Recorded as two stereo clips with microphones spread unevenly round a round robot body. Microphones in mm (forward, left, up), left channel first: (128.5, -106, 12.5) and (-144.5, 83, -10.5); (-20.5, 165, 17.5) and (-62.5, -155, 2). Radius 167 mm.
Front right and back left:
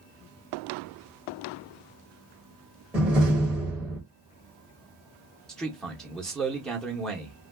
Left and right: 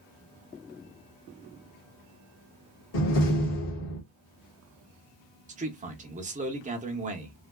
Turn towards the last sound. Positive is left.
turn(degrees=-130)